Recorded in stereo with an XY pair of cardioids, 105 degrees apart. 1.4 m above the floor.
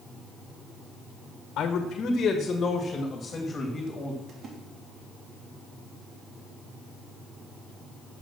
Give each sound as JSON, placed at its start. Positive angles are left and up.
{"t": 1.6, "sound": "a man speaking", "azimuth_deg": 70, "distance_m": 1.3}
{"t": 4.3, "sound": "a splash", "azimuth_deg": -60, "distance_m": 3.0}